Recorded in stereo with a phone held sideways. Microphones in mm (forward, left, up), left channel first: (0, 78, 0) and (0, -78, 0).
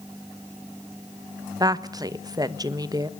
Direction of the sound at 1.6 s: 25° right (ahead or behind).